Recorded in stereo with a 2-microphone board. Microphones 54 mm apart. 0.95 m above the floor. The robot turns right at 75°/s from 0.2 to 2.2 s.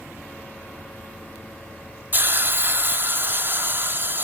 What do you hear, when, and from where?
2.1 s a hiss: 35° right (ahead or behind), 0.9 m; by 4.2 s 40° right (ahead or behind), 0.9 m